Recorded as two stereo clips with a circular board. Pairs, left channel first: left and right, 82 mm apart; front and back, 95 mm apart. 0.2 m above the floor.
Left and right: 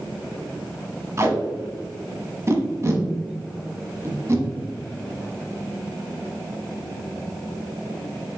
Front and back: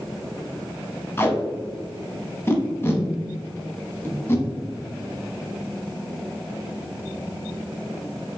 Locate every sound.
1.2 s tape being pulled: 55° right, 0.9 m